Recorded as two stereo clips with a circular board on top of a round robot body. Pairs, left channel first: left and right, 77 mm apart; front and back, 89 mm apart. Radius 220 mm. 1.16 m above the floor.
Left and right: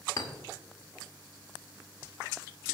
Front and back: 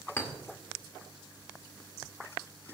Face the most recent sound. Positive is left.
turn(degrees=60)